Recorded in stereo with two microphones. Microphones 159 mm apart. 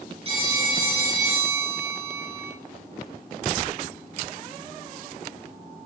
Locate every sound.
0.2 s a phone ringing: 40° right (ahead or behind), 2.5 m